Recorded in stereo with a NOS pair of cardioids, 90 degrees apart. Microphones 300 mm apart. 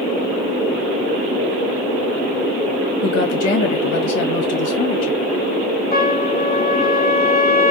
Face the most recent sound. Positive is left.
turn(degrees=30)